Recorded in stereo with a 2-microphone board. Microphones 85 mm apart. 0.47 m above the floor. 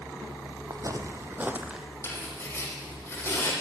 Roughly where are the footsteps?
Right.